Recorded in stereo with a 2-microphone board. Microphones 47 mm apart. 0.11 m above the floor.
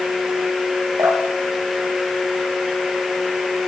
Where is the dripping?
65° right (ahead or behind), 4.5 m.